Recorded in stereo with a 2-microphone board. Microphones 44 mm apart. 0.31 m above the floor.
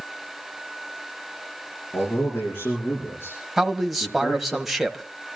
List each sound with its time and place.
1.9 s a man speaking: 45° left (ahead or behind), 7.5 m; by 4.6 s 50° left (ahead or behind), 9 m
3.6 s a man speaking: 5° right (ahead or behind), 1.5 m